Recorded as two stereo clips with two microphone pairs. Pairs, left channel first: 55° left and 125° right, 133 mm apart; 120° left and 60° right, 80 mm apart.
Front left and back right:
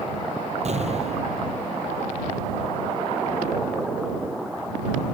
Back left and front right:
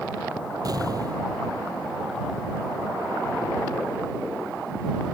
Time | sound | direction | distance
0.7 | an explosion | 95° right | ?